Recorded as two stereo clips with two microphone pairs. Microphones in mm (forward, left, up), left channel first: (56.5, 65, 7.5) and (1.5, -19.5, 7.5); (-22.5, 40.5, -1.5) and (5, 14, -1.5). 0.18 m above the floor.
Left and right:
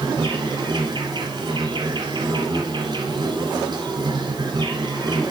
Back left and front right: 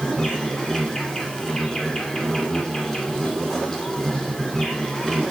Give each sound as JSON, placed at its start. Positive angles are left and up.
{"t": 0.0, "sound": "an insect", "azimuth_deg": -150, "distance_m": 2.0}